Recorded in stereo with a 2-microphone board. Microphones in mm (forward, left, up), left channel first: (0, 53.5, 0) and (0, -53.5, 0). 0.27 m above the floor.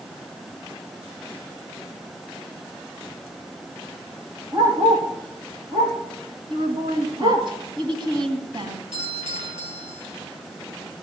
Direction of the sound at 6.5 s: 50° right (ahead or behind).